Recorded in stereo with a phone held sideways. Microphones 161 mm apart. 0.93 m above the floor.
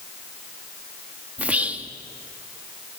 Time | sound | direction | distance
1.4 | whispering | 10° right (ahead or behind) | 1.6 m